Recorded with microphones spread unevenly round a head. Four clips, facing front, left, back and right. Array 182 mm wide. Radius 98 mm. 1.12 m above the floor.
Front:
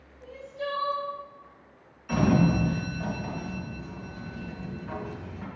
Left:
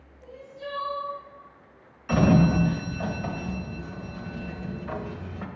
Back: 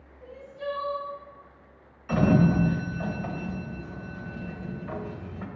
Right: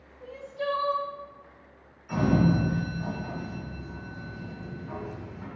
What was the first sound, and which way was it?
Crying, 60° right.